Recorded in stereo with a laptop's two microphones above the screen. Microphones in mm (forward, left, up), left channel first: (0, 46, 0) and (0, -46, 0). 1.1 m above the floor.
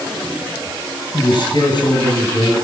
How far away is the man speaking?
About 9 m.